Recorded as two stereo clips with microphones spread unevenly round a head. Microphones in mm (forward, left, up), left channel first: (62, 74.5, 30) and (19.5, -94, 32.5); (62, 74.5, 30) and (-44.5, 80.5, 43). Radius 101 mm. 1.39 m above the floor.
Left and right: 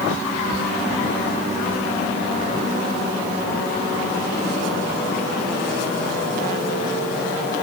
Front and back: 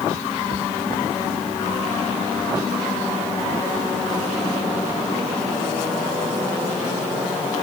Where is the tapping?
I don't hear tapping.